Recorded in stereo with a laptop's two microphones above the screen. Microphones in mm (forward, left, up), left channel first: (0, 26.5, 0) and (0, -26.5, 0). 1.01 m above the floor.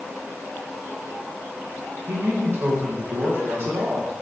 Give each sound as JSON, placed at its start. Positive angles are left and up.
{"t": 2.1, "sound": "a man speaking", "side_deg": -45, "distance_m": 0.7}